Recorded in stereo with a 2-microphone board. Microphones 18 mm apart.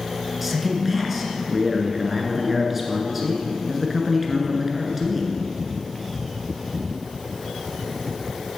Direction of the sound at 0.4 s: 5° right (ahead or behind).